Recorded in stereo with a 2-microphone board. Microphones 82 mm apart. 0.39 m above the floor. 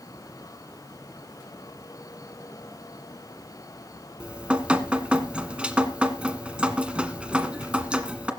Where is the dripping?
15° right (ahead or behind), 1.5 m.